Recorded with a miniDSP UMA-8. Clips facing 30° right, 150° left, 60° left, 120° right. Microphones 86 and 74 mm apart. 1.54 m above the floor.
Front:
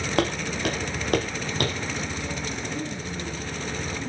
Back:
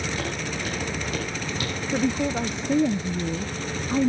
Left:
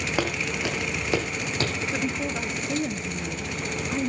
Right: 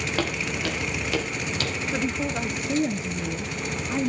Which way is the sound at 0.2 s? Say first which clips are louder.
Front 5 dB, left 1 dB; 15° right.